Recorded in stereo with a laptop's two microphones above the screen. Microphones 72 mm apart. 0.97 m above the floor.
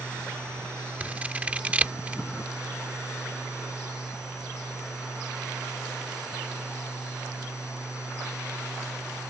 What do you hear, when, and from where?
0.0 s a fan: 20° right (ahead or behind)
1.0 s scissors: 20° right (ahead or behind)